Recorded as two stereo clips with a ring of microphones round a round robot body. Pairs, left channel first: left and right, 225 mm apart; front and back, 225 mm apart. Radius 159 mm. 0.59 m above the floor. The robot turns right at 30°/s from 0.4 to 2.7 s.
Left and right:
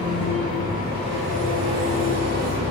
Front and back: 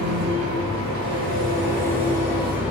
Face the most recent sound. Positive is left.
turn(degrees=-95)